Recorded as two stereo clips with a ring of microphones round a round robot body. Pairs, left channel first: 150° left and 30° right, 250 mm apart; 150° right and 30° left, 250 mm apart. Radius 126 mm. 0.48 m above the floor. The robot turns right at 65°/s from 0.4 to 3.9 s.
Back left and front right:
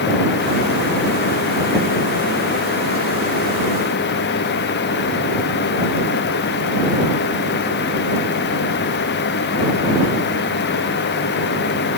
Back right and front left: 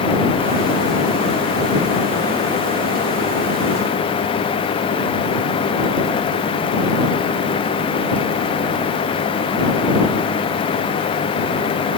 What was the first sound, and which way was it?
Only background noise.